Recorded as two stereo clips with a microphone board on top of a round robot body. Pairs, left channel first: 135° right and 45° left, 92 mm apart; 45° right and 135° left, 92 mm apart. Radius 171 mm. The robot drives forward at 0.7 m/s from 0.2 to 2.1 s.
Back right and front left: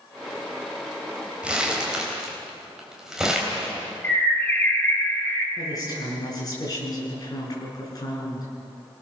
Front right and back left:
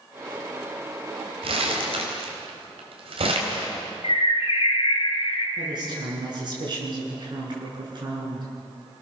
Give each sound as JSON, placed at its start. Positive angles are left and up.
{"t": 1.4, "sound": "crumpling", "azimuth_deg": 125, "distance_m": 4.0}
{"t": 4.0, "sound": "a bird", "azimuth_deg": -65, "distance_m": 3.0}
{"t": 5.6, "sound": "a woman speaking", "azimuth_deg": 175, "distance_m": 7.5}